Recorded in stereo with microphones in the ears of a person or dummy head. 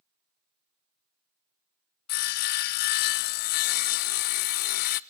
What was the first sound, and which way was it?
Sawing, 45° left (ahead or behind).